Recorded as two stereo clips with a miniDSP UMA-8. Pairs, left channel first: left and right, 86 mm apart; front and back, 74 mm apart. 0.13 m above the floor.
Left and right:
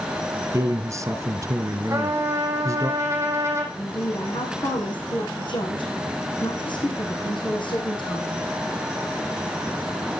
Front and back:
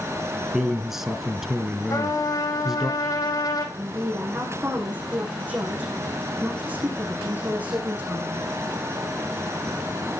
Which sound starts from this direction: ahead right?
A trumpet, at 1.9 s.